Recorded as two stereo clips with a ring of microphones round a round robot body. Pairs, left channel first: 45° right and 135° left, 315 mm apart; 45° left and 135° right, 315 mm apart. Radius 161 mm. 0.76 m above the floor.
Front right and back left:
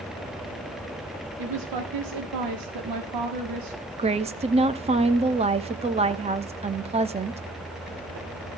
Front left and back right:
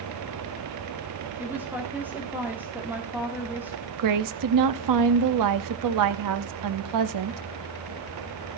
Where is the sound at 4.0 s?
155° right, 1.0 m.